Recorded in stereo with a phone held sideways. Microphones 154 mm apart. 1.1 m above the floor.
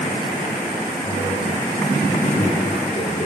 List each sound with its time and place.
1.0 s a man speaking: 60° left (ahead or behind), 3 m